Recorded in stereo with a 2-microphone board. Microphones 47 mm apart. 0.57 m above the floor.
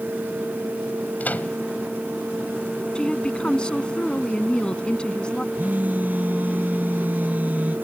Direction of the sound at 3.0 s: 20° left (ahead or behind).